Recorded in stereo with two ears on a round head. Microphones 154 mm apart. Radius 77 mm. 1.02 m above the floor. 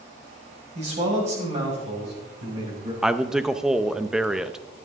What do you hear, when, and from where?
0.8 s a man speaking: 40° right (ahead or behind), 5 m
3.0 s a man speaking: 5° right (ahead or behind), 0.7 m